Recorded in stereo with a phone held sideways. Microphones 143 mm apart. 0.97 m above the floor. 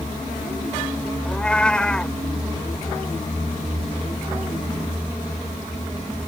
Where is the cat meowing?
5° left (ahead or behind).